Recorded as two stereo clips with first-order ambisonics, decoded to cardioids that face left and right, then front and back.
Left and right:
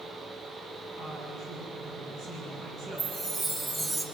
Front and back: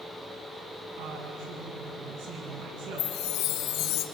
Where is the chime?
5° left, 1.9 m.